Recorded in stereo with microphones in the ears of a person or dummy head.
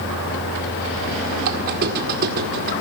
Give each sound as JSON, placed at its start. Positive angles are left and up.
{"t": 1.4, "sound": "a squeak", "side_deg": -55, "distance_m": 1.8}